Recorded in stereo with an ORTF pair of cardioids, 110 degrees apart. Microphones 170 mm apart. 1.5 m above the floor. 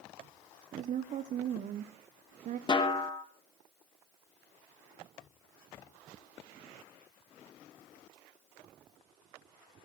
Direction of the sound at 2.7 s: 30° left.